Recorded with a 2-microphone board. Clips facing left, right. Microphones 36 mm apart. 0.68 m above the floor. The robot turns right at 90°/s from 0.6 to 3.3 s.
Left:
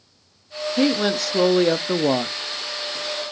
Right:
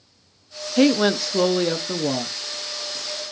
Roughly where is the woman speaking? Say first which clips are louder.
Right 3 dB; ahead right.